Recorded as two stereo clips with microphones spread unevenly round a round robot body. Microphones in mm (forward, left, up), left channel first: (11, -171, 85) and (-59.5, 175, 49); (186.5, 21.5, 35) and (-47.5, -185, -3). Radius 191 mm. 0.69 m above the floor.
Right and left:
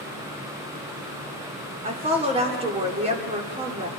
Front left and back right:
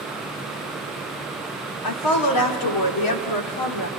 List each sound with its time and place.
1.8 s a woman speaking: 30° left, 2 m